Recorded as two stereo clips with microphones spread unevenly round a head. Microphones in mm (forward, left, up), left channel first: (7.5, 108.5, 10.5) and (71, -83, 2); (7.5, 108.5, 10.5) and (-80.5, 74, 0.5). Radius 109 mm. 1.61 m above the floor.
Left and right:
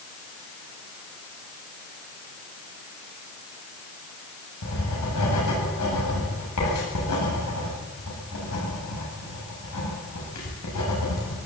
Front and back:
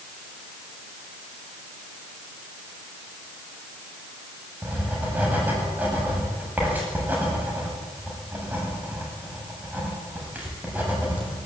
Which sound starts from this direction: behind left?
Writing, at 4.6 s.